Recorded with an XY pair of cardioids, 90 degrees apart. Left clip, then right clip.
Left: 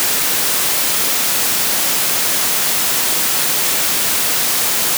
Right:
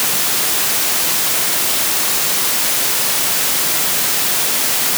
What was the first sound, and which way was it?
Only background noise.